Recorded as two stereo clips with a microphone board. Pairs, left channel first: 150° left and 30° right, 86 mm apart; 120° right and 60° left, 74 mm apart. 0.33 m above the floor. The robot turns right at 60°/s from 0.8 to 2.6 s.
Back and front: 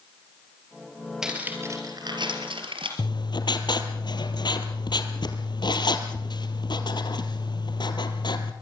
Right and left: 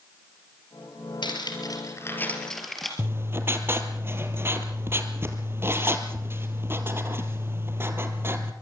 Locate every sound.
1.2 s cutlery clinking: 115° right, 4.5 m; by 2.9 s 30° right, 4.5 m
3.0 s writing: 120° left, 2 m